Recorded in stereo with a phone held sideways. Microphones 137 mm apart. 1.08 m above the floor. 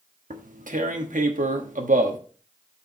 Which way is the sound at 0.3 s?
75° right (ahead or behind).